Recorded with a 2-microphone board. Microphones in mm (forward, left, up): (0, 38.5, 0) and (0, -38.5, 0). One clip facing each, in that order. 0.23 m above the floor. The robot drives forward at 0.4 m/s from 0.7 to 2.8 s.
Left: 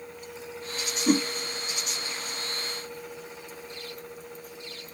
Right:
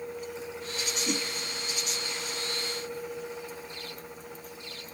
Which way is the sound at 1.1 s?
50° left (ahead or behind).